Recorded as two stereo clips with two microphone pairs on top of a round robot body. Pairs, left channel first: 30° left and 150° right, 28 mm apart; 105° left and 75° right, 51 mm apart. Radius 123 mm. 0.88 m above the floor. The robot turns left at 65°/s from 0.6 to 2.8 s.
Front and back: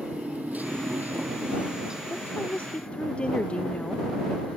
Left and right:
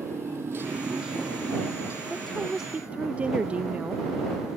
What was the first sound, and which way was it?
A motorcycle, 115° right.